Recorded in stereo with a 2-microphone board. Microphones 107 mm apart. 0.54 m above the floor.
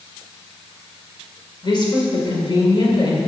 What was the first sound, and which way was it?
A woman speaking, 45° left (ahead or behind).